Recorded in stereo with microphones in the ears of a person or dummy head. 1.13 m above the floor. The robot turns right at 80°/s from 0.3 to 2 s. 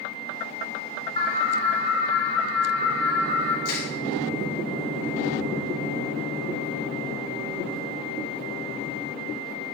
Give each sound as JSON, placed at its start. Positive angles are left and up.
{"t": 1.2, "sound": "an alarm", "azimuth_deg": 30, "distance_m": 3.5}
{"t": 3.6, "sound": "crushing", "side_deg": 60, "distance_m": 4.5}